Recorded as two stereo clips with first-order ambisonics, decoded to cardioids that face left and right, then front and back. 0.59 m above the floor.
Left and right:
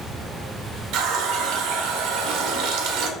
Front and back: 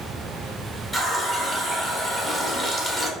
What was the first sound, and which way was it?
A running tap, 80° right.